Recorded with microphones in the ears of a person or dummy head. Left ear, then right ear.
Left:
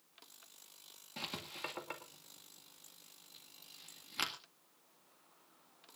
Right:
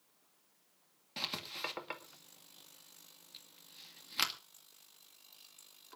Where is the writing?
15° right (ahead or behind), 1.9 m.